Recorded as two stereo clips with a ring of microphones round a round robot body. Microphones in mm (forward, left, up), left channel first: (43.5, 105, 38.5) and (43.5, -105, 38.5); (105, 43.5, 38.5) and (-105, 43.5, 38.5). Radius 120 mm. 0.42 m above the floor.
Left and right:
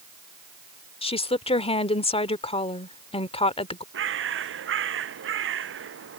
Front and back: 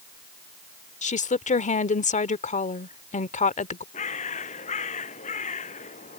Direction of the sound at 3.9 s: 60° right.